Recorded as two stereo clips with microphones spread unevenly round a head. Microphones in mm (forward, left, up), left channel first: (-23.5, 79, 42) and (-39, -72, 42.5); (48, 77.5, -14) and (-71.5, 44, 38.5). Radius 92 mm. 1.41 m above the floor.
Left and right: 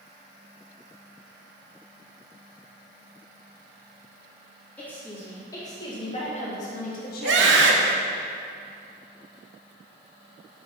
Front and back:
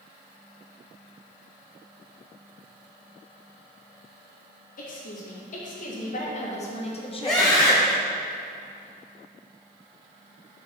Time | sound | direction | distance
4.8 | a woman speaking | straight ahead | 2.5 m
7.2 | a scream | 85° right | 0.7 m